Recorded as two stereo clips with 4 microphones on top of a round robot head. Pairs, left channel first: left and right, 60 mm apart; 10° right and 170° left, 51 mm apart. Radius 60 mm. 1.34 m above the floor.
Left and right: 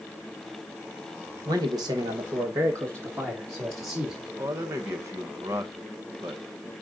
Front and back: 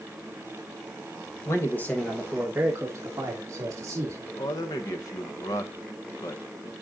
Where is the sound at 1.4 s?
55° right, 1.3 m; by 4.3 s 155° right, 3 m.